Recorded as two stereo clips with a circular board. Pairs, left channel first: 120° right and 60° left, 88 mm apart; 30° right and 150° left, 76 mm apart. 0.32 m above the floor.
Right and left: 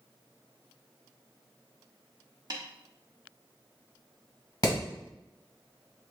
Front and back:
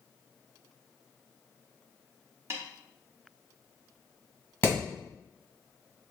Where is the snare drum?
100° left, 0.9 m.